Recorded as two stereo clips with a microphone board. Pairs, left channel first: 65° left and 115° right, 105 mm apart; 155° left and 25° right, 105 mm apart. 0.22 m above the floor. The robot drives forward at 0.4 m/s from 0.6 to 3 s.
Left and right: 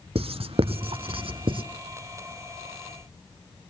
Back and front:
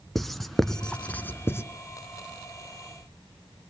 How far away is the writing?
About 0.7 m.